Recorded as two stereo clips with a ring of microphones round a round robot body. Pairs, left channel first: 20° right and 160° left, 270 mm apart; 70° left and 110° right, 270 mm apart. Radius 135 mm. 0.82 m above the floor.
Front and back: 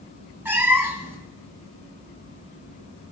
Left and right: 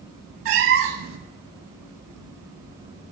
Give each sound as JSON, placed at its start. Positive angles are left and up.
{"t": 0.5, "sound": "a cat meowing", "azimuth_deg": -120, "distance_m": 0.9}